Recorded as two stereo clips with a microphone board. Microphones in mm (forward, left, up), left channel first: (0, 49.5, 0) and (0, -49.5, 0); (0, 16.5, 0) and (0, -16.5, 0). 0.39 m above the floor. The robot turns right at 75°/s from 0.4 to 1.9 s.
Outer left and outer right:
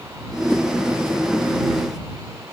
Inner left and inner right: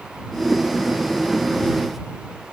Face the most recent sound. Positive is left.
No sound to turn to.